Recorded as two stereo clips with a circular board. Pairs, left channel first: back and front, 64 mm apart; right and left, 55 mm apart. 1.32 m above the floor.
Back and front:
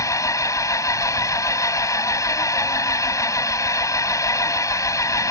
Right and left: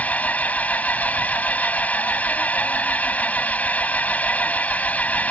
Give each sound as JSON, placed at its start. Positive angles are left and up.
{"t": 0.0, "sound": "an engine running", "azimuth_deg": -155}